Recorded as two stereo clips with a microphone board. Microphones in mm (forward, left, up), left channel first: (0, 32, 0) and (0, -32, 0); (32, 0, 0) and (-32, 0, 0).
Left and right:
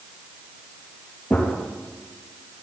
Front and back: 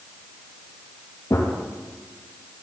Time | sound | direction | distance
1.3 | a gunshot | 20° left | 3.5 m